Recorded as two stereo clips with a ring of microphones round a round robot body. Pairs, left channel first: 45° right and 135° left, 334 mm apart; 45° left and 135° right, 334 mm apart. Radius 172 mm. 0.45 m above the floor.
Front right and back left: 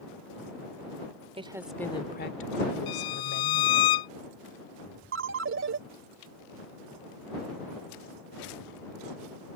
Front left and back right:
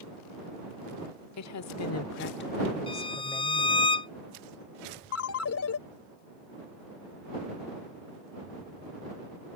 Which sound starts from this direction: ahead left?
A woman speaking, at 1.4 s.